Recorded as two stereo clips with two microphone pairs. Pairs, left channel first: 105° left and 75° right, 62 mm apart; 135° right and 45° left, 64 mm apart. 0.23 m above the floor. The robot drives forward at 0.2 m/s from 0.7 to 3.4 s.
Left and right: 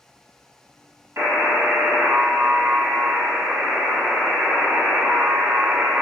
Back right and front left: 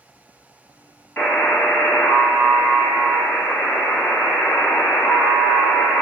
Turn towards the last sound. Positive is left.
turn(degrees=-135)